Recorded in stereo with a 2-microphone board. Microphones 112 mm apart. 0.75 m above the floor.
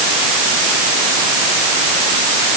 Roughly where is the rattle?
No rattle in this recording.